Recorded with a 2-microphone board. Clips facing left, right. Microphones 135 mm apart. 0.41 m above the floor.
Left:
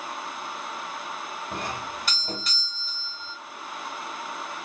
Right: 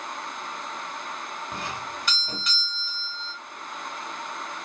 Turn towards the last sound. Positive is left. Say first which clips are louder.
# left 3 dB
turn(degrees=35)  # may be behind; listen again after turning